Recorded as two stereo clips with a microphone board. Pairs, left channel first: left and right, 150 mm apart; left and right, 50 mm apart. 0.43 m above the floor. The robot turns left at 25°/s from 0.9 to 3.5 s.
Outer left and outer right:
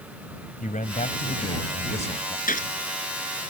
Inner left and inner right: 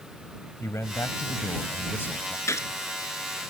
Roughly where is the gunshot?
Left.